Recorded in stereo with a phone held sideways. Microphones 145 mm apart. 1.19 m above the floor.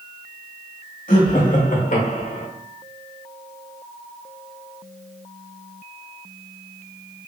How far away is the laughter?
About 1.5 m.